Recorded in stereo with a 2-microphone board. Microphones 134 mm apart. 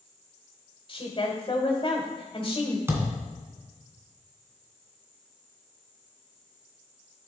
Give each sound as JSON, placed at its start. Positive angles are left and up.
{"t": 0.9, "sound": "a woman speaking", "side_deg": 30, "distance_m": 1.3}
{"t": 2.9, "sound": "a thud", "side_deg": -20, "distance_m": 1.7}